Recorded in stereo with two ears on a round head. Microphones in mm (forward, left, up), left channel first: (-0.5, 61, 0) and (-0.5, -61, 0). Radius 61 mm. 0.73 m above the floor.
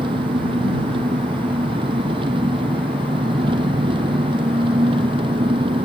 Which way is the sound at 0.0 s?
40° right (ahead or behind).